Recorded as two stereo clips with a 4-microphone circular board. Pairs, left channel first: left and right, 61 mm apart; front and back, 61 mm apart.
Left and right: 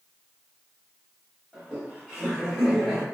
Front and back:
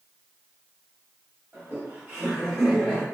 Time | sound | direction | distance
1.5 | laughter | 155° right | 1.2 m